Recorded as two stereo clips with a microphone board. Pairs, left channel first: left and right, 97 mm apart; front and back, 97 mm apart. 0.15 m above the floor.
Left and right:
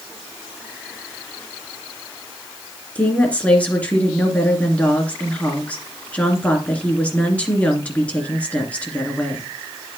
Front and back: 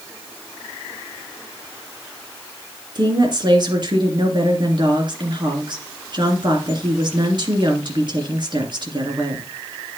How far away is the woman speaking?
About 2 m.